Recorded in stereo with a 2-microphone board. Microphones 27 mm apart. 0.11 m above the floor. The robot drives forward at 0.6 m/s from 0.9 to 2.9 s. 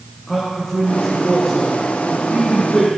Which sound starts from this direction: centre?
A man speaking, at 0.3 s.